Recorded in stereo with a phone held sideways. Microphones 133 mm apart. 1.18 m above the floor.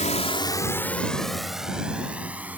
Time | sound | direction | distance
0.0 | a drone | 65° left (ahead or behind) | ?